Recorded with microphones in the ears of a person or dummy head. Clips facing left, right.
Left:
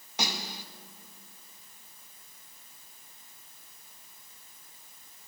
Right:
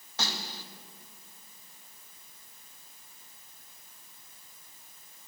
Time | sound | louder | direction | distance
0.2 | a snare drum | left 2 dB | 15° left (ahead or behind) | 2 m